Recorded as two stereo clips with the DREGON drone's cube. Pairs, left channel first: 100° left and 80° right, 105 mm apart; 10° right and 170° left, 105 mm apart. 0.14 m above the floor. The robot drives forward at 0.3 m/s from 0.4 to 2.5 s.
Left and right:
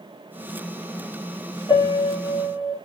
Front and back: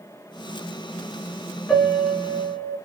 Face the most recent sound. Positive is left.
turn(degrees=100)